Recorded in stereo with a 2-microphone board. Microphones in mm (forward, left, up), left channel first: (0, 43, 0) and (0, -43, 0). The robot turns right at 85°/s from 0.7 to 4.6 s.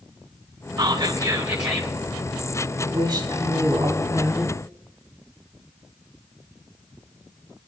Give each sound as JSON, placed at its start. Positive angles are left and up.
{"t": 0.8, "sound": "whispering", "azimuth_deg": -85, "distance_m": 2.0}
{"t": 2.8, "sound": "a woman speaking", "azimuth_deg": -145, "distance_m": 4.0}